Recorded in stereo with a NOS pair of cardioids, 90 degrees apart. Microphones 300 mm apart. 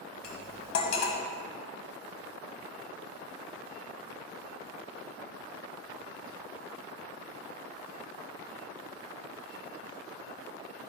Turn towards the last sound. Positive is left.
turn(degrees=65)